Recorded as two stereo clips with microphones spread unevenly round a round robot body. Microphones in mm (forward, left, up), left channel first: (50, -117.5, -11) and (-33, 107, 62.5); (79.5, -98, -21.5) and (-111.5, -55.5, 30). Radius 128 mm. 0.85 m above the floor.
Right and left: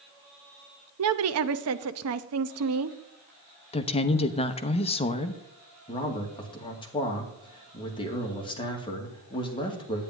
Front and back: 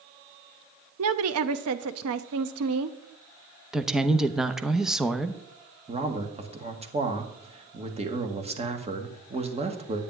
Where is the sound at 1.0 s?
145° left, 0.7 m.